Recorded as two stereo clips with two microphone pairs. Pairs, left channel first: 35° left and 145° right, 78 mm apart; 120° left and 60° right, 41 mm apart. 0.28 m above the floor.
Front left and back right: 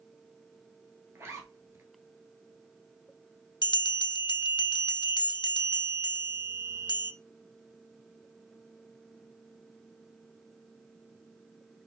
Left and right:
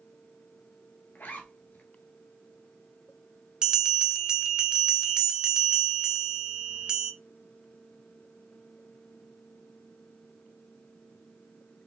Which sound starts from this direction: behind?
A zipper, at 1.1 s.